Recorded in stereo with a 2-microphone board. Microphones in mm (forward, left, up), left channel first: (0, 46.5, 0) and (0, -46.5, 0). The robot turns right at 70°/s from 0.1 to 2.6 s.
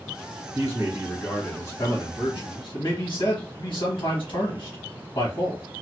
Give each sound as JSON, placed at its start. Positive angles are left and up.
{"t": 0.5, "sound": "a man speaking", "azimuth_deg": -40, "distance_m": 1.4}